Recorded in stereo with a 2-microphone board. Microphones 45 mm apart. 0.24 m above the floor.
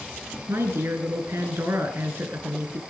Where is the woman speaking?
60° right (ahead or behind), 3.5 m.